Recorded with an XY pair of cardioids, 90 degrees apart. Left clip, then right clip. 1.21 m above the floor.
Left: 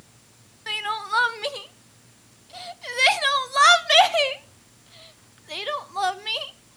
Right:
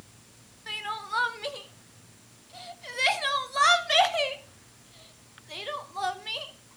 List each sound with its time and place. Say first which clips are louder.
0.7 s crying: left 6 dB; 50° left, 0.6 m